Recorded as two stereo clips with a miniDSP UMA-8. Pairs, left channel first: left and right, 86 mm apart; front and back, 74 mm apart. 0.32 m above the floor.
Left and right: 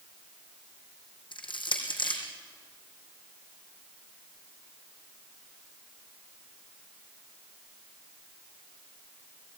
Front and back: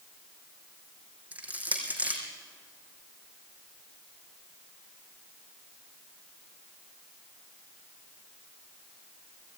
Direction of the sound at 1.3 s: 110° left.